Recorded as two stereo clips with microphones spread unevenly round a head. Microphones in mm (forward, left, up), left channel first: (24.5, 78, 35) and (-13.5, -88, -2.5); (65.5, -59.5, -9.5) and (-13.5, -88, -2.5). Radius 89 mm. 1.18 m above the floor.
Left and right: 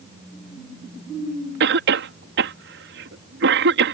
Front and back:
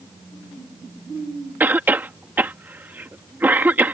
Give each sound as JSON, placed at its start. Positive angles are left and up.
{"t": 1.6, "sound": "a cough", "azimuth_deg": -90}